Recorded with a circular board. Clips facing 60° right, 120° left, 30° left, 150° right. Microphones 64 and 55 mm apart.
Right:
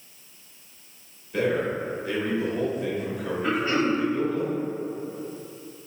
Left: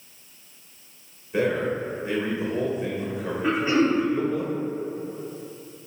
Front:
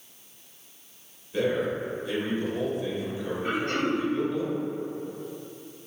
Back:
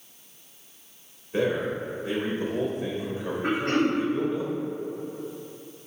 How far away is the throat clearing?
About 1.4 m.